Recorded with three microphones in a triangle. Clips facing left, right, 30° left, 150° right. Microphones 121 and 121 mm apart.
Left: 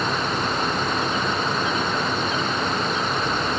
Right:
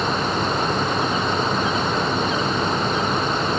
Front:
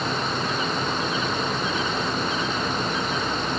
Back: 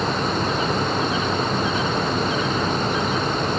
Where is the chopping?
No chopping in this recording.